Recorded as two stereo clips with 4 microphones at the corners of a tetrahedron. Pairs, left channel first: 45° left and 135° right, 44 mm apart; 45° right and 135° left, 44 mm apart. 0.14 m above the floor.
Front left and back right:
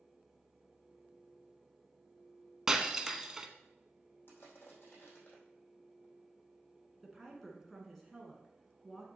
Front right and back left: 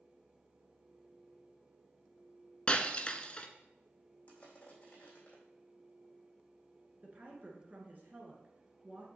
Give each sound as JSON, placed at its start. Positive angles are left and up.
{"t": 2.7, "sound": "breaking glass", "azimuth_deg": -70, "distance_m": 0.8}
{"t": 4.3, "sound": "crushing", "azimuth_deg": 15, "distance_m": 3.5}
{"t": 7.0, "sound": "a woman speaking", "azimuth_deg": 130, "distance_m": 1.7}